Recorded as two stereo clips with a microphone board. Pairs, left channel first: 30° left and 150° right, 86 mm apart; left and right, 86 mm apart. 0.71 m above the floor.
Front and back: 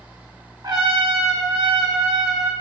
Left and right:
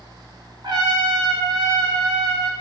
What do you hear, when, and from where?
0.6 s a trumpet: 115° right, 0.6 m